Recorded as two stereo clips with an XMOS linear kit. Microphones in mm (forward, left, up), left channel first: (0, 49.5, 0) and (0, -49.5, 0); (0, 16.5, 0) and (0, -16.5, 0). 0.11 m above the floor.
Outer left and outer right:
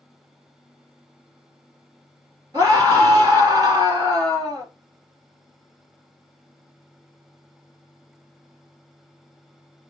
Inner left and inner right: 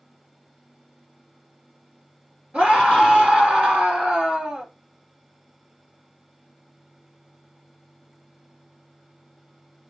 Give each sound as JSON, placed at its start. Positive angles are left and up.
{"t": 2.5, "sound": "a scream", "side_deg": -35, "distance_m": 2.0}